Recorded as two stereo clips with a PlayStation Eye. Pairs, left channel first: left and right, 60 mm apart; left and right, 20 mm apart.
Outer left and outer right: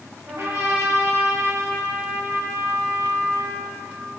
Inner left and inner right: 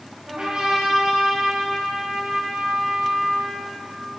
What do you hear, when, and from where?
0.3 s a trumpet: 50° right (ahead or behind), 3.5 m